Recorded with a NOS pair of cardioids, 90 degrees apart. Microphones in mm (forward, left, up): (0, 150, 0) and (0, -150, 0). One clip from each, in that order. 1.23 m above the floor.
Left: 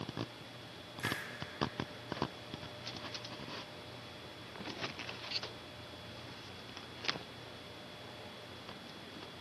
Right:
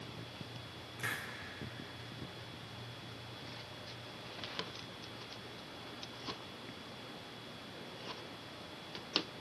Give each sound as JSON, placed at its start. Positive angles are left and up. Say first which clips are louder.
{"t": 1.0, "sound": "a hiss", "louder": "left 1 dB", "azimuth_deg": 5, "distance_m": 2.5}